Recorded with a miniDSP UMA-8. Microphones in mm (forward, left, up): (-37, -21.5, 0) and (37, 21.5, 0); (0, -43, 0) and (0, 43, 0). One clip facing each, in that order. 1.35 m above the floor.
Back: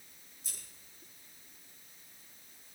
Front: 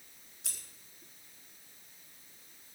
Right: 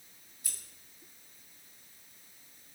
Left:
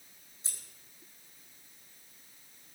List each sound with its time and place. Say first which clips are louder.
0.4 s scissors: front 2 dB, right 1 dB; 25° left, 4.5 m